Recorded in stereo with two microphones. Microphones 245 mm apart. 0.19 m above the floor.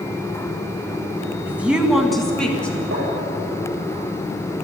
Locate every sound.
1.5 s a woman speaking: 10° right (ahead or behind), 1.1 m; by 2.8 s 5° left (ahead or behind), 1.9 m
2.9 s tapping: 55° right (ahead or behind), 5.5 m